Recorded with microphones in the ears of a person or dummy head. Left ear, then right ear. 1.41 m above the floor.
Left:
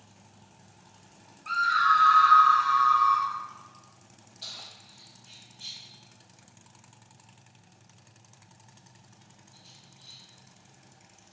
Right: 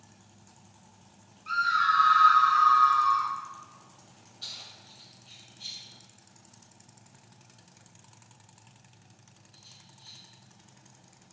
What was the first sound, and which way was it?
A scream, 15° left (ahead or behind).